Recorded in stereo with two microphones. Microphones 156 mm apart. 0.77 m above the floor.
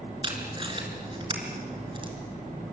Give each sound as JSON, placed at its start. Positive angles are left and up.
{"t": 0.2, "sound": "tape being pulled", "side_deg": -30, "distance_m": 4.5}